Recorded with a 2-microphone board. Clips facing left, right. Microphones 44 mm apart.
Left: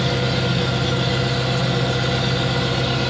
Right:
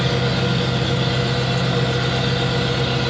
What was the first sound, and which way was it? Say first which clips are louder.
An engine running: right 1 dB; 5° right (ahead or behind).